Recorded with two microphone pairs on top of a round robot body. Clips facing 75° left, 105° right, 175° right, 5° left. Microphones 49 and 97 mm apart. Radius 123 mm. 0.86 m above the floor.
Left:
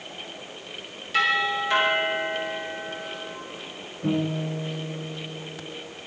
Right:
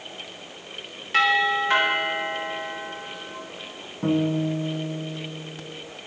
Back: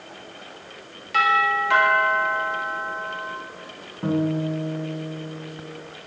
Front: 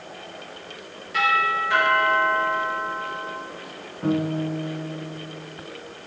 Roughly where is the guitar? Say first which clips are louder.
Right 4 dB, back 1 dB; behind right.